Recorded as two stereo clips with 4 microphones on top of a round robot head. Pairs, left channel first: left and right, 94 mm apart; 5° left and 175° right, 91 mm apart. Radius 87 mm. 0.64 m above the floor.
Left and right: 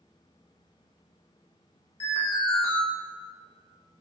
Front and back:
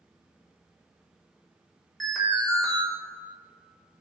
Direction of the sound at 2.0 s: 90° left.